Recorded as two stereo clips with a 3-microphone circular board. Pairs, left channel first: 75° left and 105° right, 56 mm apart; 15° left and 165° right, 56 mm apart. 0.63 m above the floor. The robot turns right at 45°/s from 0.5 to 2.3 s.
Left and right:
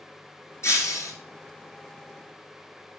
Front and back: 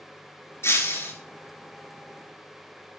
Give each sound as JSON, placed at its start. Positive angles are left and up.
{"t": 0.6, "sound": "breaking glass", "azimuth_deg": 50, "distance_m": 1.6}